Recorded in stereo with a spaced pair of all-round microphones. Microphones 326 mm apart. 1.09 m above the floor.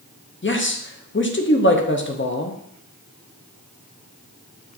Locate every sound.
0.4 s a man speaking: 35° left (ahead or behind), 0.6 m